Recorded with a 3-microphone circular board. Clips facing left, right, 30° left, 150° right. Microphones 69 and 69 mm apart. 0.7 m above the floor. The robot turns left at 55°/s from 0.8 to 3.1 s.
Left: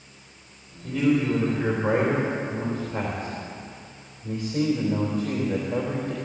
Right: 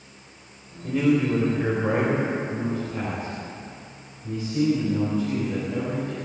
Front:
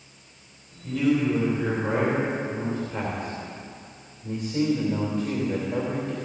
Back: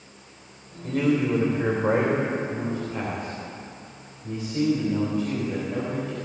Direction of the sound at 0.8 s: 165° right.